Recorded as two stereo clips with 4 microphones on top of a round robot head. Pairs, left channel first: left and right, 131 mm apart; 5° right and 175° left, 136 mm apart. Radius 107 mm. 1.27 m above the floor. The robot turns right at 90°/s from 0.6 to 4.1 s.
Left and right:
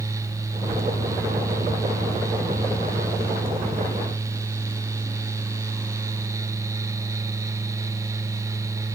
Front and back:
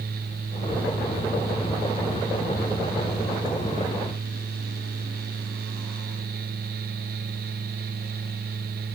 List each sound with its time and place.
Only background noise.